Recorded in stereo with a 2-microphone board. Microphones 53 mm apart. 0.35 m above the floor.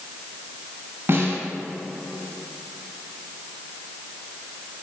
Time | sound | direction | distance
1.1 | a snare drum | 50° right (ahead or behind) | 1.7 m